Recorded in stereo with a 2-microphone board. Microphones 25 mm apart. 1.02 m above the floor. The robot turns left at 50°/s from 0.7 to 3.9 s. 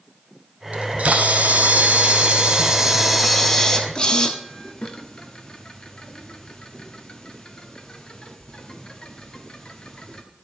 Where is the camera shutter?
55° right (ahead or behind), 0.8 m; by 10.2 s 35° left (ahead or behind), 0.8 m.